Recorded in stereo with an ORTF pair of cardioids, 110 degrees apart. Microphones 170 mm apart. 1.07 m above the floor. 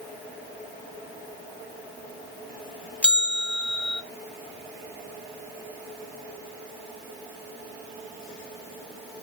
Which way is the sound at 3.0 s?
5° left.